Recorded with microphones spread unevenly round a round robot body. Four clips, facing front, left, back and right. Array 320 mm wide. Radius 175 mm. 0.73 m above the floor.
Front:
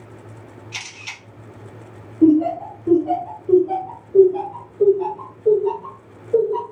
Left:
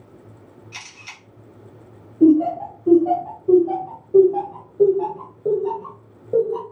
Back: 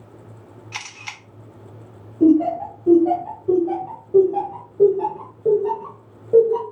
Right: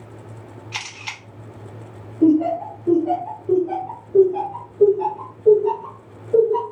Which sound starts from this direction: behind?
Laughter, at 2.2 s.